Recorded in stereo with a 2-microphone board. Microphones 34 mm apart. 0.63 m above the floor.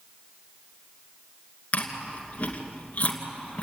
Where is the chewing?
45° left (ahead or behind), 2.5 m.